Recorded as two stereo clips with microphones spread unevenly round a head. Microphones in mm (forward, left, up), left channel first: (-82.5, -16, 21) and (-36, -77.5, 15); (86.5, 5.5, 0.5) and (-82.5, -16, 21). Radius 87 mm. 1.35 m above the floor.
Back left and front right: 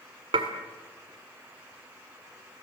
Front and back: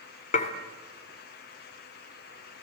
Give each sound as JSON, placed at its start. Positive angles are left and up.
{"t": 0.3, "sound": "dishes clattering", "azimuth_deg": -40, "distance_m": 2.5}